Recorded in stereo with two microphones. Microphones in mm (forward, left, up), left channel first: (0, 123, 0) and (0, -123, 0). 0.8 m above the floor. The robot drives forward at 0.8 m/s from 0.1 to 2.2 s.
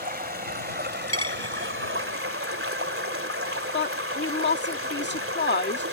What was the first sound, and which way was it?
Running water, 40° right (ahead or behind).